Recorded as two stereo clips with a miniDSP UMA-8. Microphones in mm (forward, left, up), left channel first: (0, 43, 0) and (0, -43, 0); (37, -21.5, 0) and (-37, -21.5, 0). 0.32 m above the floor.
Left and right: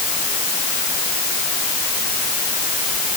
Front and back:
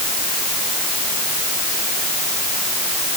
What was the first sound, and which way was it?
Only background noise.